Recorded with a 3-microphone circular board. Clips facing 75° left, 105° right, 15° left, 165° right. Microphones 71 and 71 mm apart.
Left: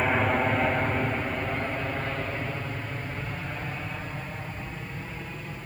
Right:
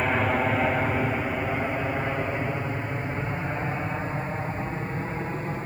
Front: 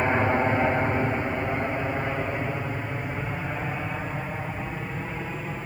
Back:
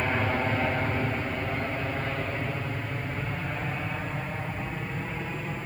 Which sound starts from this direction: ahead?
An aircraft, at 0.0 s.